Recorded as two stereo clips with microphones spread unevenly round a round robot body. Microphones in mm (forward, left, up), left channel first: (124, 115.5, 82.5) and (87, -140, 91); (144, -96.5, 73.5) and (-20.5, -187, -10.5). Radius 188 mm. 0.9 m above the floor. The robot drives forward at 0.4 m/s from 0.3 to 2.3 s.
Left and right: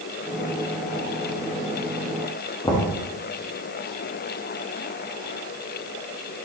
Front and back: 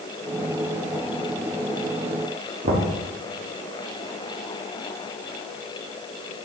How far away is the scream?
I don't hear a scream.